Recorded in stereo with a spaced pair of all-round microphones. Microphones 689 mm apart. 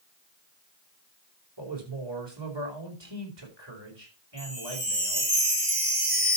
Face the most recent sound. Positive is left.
turn(degrees=-50)  # may be behind; listen again after turning